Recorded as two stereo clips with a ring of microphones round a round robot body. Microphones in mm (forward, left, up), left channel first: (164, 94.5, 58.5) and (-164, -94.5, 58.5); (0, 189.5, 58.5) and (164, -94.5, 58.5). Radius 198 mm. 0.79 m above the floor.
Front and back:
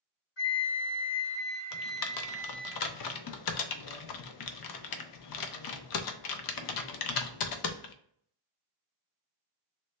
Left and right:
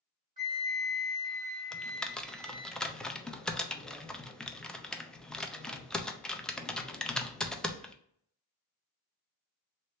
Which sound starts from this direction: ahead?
A flute, at 0.4 s.